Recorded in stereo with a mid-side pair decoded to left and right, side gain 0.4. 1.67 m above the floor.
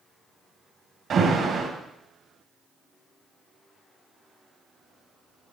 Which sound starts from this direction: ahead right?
An alarm, at 1.1 s.